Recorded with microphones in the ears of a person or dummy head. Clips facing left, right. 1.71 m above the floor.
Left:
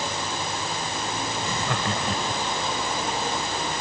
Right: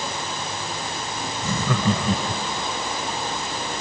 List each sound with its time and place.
1.4 s laughter: 80° right